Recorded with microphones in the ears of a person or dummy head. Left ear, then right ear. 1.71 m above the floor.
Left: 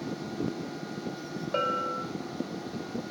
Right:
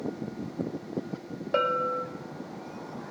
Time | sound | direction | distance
1.5 | a bell | centre (ahead or behind) | 1.5 m